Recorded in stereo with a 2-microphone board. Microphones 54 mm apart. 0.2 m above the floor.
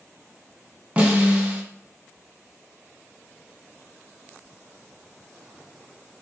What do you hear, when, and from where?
1.0 s a snare drum: 20° right (ahead or behind), 2 m